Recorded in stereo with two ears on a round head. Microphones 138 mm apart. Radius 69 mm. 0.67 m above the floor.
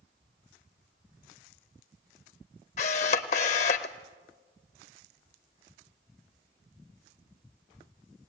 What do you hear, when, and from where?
2.8 s a camera shutter: 50° left (ahead or behind), 0.9 m